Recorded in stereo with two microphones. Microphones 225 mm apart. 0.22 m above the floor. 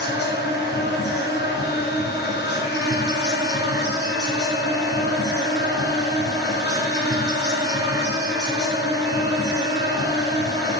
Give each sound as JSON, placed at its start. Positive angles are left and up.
{"t": 0.0, "sound": "an insect", "side_deg": 50, "distance_m": 1.8}